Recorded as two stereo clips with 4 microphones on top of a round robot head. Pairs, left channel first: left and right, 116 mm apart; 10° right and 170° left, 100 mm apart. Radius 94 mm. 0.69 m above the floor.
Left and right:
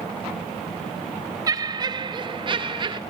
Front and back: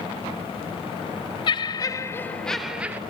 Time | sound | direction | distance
1.5 | laughter | 40° right | 0.8 m